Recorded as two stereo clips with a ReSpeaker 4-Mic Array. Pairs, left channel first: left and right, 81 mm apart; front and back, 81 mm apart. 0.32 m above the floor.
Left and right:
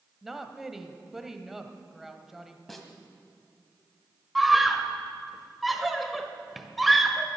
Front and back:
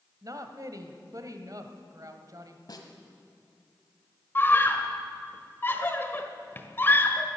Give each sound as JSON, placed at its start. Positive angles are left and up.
{"t": 0.2, "sound": "a woman speaking", "azimuth_deg": -175, "distance_m": 1.2}
{"t": 2.7, "sound": "a snare drum", "azimuth_deg": 5, "distance_m": 1.6}
{"t": 4.3, "sound": "a scream", "azimuth_deg": 0, "distance_m": 1.2}